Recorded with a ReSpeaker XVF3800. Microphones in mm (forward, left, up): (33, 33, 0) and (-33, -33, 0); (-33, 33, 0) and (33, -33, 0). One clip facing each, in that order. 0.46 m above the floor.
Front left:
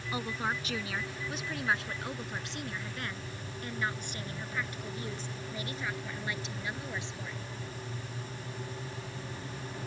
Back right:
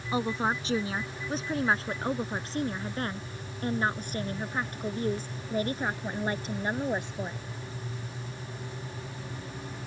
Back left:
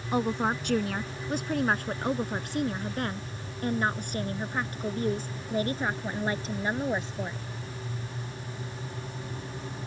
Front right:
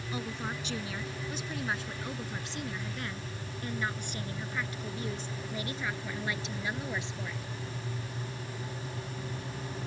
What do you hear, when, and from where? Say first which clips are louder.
0.1 s a woman speaking: back right 6 dB, back left 11 dB; 165° left; by 7.5 s 175° right